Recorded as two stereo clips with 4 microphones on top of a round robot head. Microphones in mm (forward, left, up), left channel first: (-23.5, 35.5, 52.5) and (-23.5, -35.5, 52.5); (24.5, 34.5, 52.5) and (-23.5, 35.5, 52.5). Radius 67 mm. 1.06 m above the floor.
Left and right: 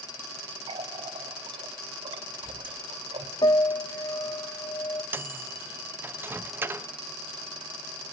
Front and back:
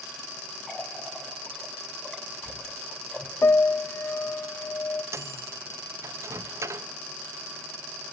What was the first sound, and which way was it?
A running tap, 85° right.